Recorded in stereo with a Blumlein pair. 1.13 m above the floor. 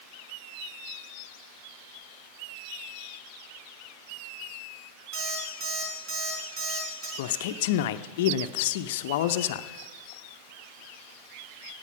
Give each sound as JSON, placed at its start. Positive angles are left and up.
{"t": 5.1, "sound": "an alarm clock", "azimuth_deg": -45, "distance_m": 4.5}
{"t": 7.2, "sound": "a man speaking", "azimuth_deg": 50, "distance_m": 0.5}